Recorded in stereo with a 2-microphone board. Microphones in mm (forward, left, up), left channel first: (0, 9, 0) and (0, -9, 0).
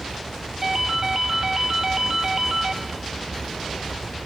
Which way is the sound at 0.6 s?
25° right (ahead or behind).